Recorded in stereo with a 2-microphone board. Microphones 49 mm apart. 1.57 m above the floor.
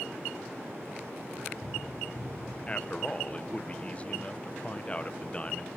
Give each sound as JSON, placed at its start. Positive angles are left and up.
{"t": 1.4, "sound": "running footsteps", "side_deg": 0, "distance_m": 8.5}
{"t": 2.7, "sound": "a man speaking", "side_deg": 25, "distance_m": 0.7}